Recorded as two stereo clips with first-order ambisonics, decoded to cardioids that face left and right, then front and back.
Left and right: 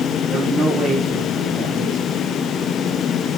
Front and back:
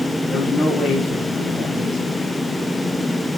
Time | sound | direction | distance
0.3 | a man speaking | 50° right | 0.9 m